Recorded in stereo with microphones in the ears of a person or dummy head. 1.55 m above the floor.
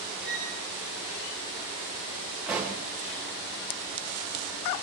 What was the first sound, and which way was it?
A violin, centre (ahead or behind).